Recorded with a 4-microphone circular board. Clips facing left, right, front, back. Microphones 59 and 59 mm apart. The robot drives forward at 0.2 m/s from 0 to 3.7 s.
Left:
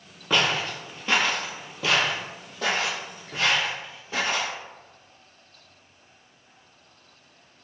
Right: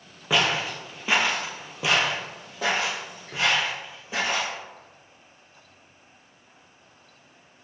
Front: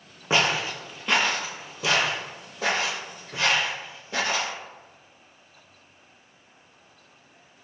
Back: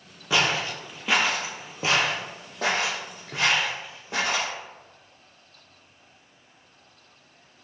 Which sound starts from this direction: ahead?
Footsteps, at 0.3 s.